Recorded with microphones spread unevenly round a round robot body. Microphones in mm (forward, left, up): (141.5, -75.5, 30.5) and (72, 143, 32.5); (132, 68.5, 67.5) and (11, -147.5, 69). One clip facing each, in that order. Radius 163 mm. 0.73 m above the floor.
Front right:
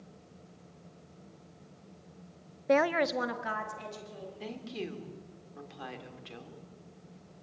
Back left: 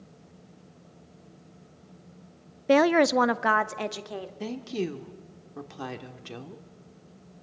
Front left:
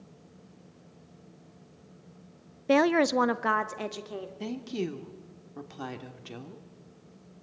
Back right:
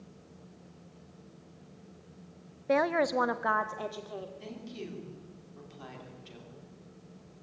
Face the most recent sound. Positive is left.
turn(degrees=80)